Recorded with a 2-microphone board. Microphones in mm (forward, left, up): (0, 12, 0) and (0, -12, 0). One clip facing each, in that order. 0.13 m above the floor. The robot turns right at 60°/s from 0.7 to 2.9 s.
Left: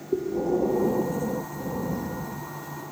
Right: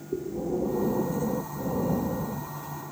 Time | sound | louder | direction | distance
0.1 | breathing | left 5 dB | 140° left | 0.6 m